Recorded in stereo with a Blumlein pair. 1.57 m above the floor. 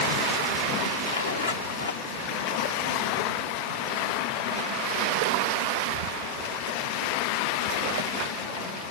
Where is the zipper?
70° left, 0.7 m.